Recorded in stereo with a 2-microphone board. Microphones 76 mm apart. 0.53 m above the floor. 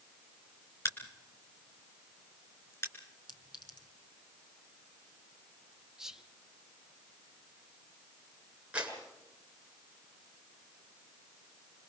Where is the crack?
35° left (ahead or behind), 3.5 m.